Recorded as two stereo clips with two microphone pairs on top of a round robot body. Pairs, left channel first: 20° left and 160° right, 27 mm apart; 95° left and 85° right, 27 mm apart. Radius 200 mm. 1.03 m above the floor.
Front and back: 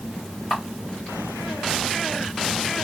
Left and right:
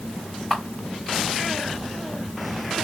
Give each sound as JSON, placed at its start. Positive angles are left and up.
{"t": 0.5, "sound": "a camera shutter", "azimuth_deg": -30, "distance_m": 1.0}